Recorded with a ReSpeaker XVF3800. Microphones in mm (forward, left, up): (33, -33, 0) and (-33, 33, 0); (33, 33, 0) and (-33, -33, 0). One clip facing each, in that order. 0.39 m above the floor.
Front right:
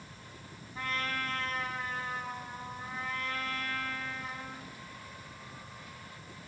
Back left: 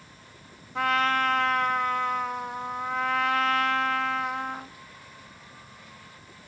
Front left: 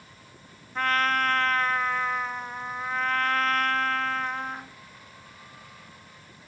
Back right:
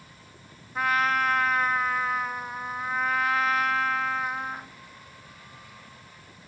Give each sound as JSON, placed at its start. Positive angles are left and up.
{"t": 0.8, "sound": "a trumpet", "azimuth_deg": 140, "distance_m": 0.5}